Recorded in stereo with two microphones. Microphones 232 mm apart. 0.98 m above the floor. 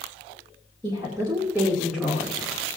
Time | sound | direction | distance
0.8 | a woman speaking | 20° right (ahead or behind) | 2 m